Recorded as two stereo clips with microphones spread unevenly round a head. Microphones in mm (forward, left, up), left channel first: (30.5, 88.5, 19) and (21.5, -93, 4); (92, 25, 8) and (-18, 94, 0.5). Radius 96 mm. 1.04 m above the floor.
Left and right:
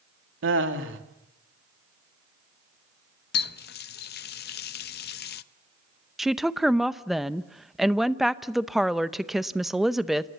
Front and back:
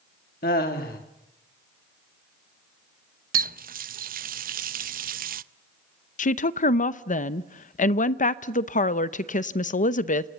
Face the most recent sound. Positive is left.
turn(degrees=-5)